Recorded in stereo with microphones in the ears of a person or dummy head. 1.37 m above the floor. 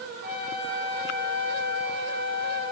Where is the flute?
45° right (ahead or behind), 4 m.